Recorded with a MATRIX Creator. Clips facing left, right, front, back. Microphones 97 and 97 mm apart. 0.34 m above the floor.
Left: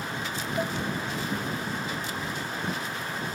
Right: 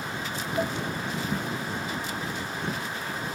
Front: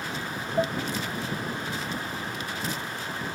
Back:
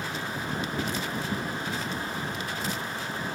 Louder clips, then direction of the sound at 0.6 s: Right 2 dB, front 7 dB; 5° right.